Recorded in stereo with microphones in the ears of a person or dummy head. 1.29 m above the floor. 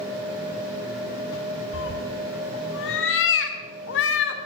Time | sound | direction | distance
1.7 | a cat meowing | 80° left | 2.5 m